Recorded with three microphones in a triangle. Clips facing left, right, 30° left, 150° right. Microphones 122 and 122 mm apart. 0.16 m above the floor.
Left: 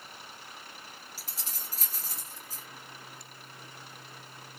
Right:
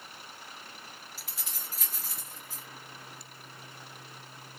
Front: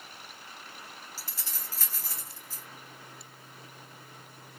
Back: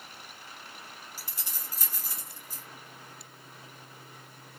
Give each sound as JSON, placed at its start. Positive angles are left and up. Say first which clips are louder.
{"t": 1.2, "sound": "keys jangling", "louder": "even, even", "azimuth_deg": 140, "distance_m": 2.0}